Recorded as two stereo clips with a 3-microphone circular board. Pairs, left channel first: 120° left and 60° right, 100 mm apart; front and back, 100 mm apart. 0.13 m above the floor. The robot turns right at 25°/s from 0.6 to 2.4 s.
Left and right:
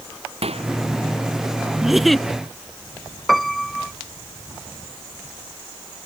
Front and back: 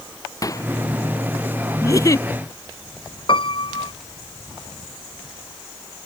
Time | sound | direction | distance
0.4 | a microwave | 55° right | ?
1.8 | a giggle | 25° left | ?
3.3 | a piano | 30° left | ?